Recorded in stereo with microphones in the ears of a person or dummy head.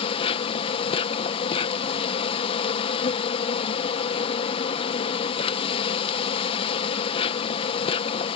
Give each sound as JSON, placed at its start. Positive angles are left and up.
{"t": 0.0, "sound": "an insect", "side_deg": 30}